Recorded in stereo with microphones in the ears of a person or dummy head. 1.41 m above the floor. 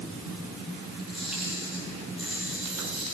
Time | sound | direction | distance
1.0 | a camera shutter | 5° right (ahead or behind) | 8.5 m